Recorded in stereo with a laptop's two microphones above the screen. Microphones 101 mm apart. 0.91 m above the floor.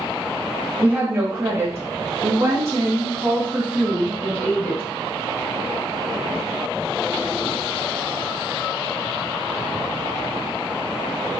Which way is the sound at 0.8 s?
20° right (ahead or behind).